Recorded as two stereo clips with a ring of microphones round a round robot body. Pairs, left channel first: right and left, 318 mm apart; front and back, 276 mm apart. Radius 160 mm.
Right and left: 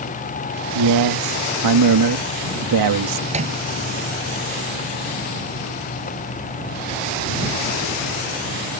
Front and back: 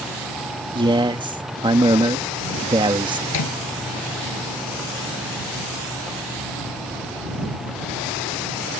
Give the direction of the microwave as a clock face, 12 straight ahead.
11 o'clock.